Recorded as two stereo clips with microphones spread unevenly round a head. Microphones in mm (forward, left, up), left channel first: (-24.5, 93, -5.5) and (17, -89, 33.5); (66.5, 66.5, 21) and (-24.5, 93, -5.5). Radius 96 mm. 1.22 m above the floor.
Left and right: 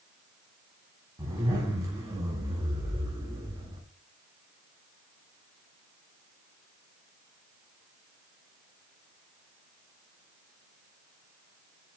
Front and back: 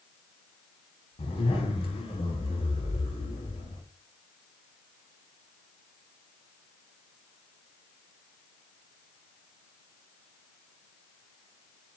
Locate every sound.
1.2 s a zipper: 5° right, 5 m